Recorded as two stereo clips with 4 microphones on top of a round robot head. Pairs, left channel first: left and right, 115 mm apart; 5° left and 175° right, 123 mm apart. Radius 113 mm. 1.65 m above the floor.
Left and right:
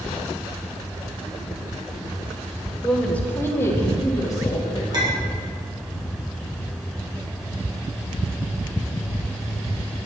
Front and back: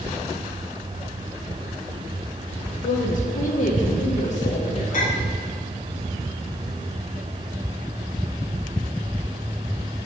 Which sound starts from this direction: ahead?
A woman speaking, at 2.8 s.